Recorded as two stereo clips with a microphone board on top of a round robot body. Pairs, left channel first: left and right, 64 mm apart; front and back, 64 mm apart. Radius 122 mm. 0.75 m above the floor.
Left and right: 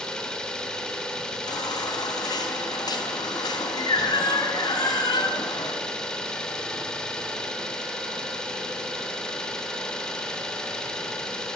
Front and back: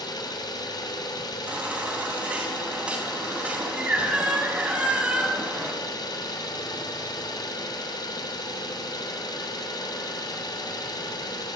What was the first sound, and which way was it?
An engine running, 10° left.